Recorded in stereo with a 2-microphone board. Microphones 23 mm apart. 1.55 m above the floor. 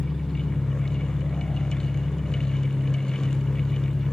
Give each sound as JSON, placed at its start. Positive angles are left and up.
{"t": 0.0, "sound": "an engine running", "side_deg": 30, "distance_m": 3.5}